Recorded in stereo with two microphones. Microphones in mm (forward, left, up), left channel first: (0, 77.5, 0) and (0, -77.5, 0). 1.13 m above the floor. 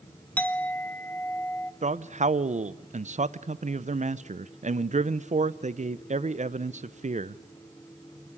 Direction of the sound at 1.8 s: 50° right (ahead or behind).